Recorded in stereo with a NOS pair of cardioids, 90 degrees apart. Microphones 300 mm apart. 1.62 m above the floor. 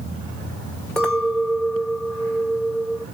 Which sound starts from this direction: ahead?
A clink, at 1.0 s.